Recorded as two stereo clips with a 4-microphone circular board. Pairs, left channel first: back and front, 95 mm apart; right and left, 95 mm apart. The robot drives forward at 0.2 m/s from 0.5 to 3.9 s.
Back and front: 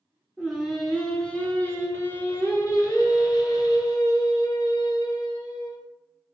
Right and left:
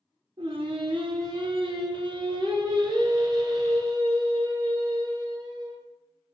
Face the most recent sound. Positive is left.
turn(degrees=140)